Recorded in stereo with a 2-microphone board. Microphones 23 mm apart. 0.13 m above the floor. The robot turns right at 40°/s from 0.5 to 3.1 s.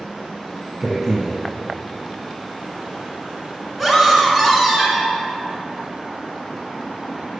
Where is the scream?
Centre (ahead or behind), 1.1 m.